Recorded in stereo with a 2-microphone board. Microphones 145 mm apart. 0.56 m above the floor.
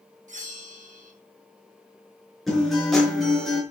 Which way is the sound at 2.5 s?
Centre (ahead or behind).